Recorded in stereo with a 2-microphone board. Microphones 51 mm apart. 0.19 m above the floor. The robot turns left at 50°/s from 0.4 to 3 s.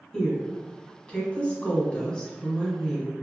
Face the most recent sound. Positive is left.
turn(degrees=5)  # may be behind; listen again after turning